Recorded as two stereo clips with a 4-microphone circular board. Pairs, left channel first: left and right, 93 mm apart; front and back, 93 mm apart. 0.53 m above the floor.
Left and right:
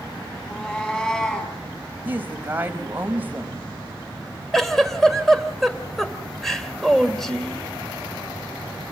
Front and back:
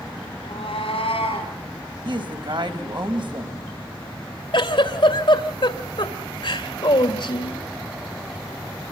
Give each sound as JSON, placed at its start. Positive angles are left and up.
{"t": 0.4, "sound": "a cat meowing", "azimuth_deg": 15, "distance_m": 6.5}
{"t": 2.0, "sound": "a woman speaking", "azimuth_deg": -160, "distance_m": 3.0}
{"t": 4.5, "sound": "a giggle", "azimuth_deg": 5, "distance_m": 2.0}